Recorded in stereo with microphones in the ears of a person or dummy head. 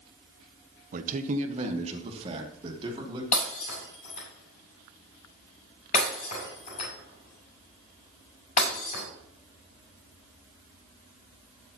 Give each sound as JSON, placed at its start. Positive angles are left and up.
{"t": 0.9, "sound": "a man speaking", "side_deg": -50, "distance_m": 1.2}
{"t": 3.3, "sound": "breaking glass", "side_deg": 50, "distance_m": 7.0}